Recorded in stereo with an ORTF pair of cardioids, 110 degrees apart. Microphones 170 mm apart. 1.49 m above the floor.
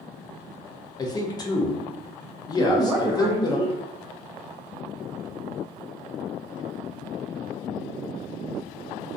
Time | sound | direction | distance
1.0 | a man speaking | 25° left | 0.6 m
2.6 | a woman speaking | 15° right | 0.6 m